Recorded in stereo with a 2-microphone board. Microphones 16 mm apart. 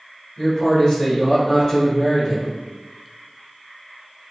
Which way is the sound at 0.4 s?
55° left (ahead or behind).